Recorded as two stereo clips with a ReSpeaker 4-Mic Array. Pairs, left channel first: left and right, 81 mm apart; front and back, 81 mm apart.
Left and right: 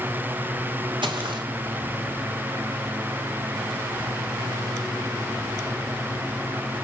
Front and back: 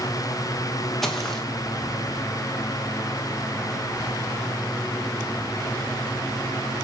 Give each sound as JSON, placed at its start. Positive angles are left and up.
{"t": 1.0, "sound": "footsteps", "azimuth_deg": -85, "distance_m": 3.0}